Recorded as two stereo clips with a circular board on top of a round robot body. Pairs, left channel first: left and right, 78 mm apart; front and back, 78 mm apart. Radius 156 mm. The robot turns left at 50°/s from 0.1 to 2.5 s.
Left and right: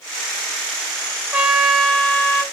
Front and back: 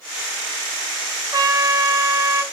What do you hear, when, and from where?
1.3 s a trumpet: 160° right, 0.6 m; by 2.4 s 145° left, 0.6 m